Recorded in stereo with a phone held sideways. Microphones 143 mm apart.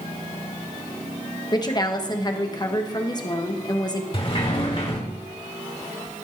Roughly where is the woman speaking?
Left.